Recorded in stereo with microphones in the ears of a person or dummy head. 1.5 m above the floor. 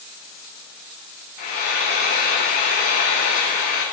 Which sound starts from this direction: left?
Frying, at 1.4 s.